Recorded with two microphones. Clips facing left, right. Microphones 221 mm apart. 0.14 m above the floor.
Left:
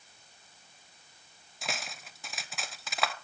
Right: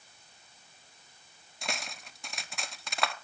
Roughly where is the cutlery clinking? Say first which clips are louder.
Even; centre.